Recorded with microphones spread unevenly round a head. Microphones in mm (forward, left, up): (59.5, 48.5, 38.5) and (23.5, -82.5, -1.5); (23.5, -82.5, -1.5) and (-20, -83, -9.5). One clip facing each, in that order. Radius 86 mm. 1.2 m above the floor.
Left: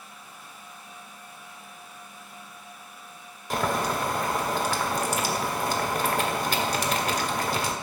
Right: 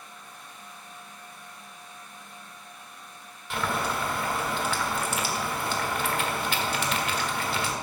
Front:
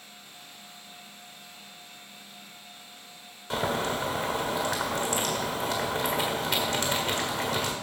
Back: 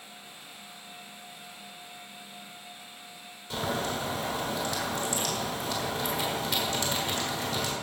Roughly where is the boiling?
Ahead left.